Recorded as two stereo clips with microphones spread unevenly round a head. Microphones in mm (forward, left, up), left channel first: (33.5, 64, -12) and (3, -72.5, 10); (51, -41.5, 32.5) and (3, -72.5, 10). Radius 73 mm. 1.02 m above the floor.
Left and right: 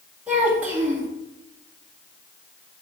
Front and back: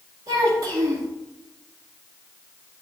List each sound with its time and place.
0.3 s a child speaking: 175° left, 1.9 m